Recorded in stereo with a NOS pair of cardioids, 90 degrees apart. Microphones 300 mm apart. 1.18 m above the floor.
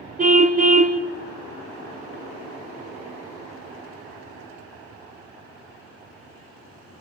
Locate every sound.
0.2 s a car horn: 30° right, 2.5 m